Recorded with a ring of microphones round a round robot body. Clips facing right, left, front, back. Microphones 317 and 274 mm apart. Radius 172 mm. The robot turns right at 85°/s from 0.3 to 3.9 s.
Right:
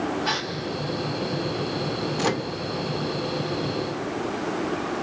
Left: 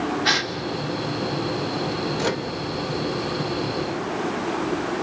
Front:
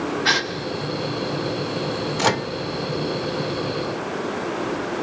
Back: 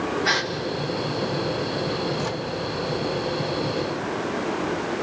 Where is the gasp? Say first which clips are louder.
Left 3 dB, front 1 dB; 40° left, 2 m; by 0.5 s 60° left, 2 m.